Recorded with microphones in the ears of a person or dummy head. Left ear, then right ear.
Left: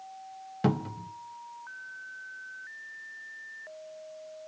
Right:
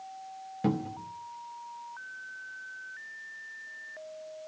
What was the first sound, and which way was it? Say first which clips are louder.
A cupboard door: left 1 dB; 50° left (ahead or behind).